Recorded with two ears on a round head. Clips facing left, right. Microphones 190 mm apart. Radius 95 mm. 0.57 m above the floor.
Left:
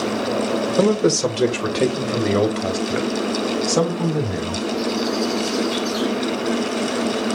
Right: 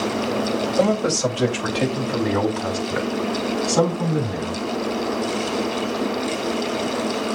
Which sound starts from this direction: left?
A man speaking, at 0.8 s.